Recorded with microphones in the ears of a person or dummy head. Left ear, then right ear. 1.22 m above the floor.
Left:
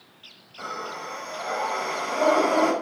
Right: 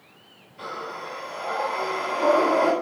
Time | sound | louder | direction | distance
0.6 | breathing | even | 55° left (ahead or behind) | 7 m